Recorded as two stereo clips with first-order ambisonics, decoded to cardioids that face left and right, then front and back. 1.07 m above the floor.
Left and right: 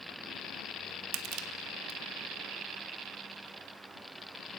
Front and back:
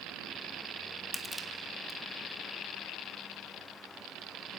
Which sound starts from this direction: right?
Crushing, at 1.1 s.